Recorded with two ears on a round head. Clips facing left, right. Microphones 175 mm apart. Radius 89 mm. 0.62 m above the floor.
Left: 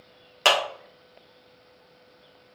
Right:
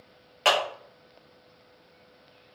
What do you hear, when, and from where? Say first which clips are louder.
0.5 s a clap: left 1 dB; 60° left (ahead or behind), 1.8 m